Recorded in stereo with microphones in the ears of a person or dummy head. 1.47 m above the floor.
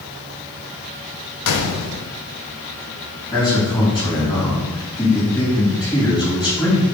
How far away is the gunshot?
About 0.8 m.